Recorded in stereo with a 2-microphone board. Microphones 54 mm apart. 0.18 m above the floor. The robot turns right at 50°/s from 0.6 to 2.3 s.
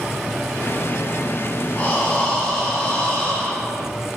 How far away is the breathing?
About 0.8 m.